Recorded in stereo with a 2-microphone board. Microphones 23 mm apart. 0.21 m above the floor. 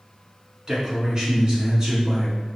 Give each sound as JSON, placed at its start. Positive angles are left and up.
{"t": 0.7, "sound": "a man speaking", "side_deg": -30, "distance_m": 1.9}